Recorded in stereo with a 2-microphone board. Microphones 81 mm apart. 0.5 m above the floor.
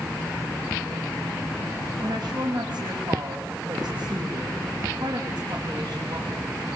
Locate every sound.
2.0 s a woman speaking: 70° right (ahead or behind), 3 m